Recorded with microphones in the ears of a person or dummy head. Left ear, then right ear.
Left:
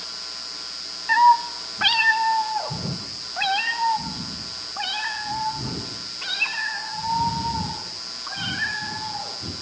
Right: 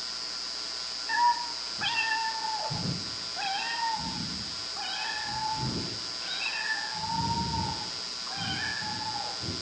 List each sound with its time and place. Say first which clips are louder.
1.1 s a cat meowing: left 10 dB; 40° left (ahead or behind), 1.6 m; by 9.5 s 85° left, 12.5 m